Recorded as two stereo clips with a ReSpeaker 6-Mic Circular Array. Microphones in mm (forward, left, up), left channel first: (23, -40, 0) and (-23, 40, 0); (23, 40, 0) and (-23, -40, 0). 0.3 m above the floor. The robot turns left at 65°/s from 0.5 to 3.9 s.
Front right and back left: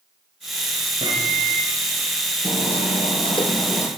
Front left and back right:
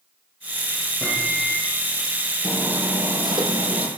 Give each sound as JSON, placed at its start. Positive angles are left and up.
{"t": 1.0, "sound": "a microwave", "azimuth_deg": 140, "distance_m": 9.0}
{"t": 2.4, "sound": "hammering", "azimuth_deg": -30, "distance_m": 6.0}